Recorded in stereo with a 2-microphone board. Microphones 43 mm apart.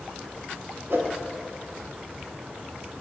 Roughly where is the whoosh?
Right.